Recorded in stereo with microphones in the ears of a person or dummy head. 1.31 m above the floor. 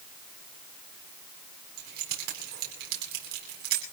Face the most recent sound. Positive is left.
turn(degrees=-55)  # may be behind; listen again after turning